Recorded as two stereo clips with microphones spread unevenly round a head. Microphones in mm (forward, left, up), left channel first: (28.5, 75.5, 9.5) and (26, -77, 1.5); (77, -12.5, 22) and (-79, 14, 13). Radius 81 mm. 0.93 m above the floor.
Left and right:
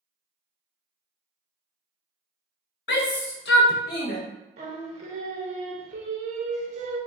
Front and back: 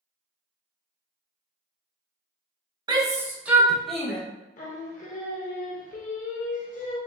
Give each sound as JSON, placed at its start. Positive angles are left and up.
{"t": 2.9, "sound": "a shout", "azimuth_deg": 110, "distance_m": 1.2}
{"t": 4.6, "sound": "singing", "azimuth_deg": -50, "distance_m": 1.1}